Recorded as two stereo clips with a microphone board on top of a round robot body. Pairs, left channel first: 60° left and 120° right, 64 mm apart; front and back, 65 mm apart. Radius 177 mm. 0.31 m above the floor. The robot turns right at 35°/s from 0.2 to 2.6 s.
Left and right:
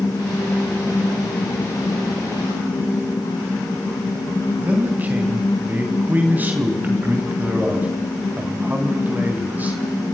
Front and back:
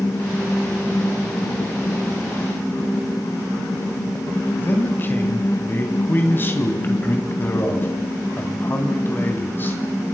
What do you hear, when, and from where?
4.6 s a man speaking: 55° right, 3 m